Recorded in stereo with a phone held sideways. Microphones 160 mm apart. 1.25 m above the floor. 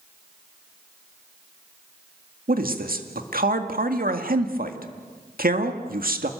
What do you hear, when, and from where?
2.5 s a man speaking: 65° right (ahead or behind), 2.0 m